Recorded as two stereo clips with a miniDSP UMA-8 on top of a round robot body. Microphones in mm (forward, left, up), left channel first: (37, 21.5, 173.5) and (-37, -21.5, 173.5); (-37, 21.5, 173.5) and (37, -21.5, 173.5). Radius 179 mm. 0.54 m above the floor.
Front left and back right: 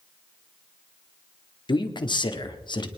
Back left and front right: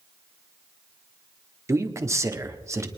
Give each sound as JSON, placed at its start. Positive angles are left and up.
{"t": 1.7, "sound": "a man speaking", "azimuth_deg": 20, "distance_m": 1.9}